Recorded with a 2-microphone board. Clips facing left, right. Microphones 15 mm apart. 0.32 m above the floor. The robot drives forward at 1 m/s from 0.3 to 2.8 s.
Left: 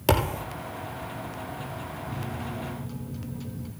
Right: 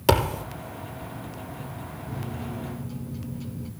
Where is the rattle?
I don't hear a rattle.